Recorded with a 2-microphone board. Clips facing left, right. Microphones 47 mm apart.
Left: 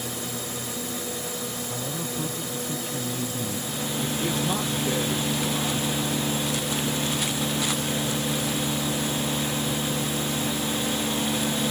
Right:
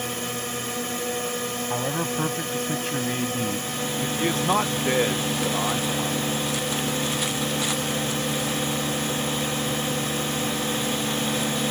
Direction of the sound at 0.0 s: 50° right (ahead or behind).